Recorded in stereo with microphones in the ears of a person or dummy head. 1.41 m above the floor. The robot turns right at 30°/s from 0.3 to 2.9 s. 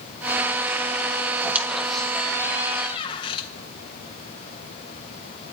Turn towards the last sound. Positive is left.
turn(degrees=30)